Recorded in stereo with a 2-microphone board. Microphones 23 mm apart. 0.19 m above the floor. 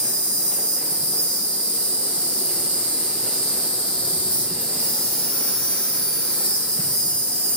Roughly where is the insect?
Left.